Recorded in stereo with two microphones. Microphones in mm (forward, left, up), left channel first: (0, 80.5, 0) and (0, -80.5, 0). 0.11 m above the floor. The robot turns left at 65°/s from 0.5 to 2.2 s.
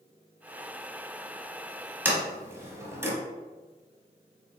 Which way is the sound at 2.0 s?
15° right (ahead or behind).